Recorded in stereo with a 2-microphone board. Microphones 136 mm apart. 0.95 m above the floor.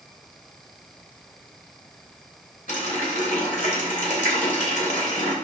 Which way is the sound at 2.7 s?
70° left (ahead or behind).